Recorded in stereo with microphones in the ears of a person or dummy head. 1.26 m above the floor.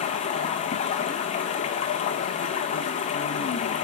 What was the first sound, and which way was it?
Running water, 30° left (ahead or behind).